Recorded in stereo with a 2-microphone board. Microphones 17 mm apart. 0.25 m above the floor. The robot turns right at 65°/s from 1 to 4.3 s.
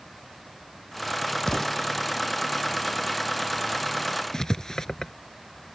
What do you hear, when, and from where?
1.5 s an explosion: 30° left (ahead or behind); by 1.8 s 10° left (ahead or behind)
4.3 s writing: 35° left (ahead or behind)